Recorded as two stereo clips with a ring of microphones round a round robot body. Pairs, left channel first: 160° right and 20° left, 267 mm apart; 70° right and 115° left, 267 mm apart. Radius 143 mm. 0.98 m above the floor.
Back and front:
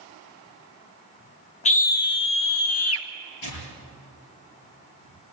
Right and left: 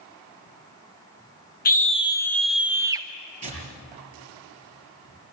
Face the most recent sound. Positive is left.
turn(degrees=180)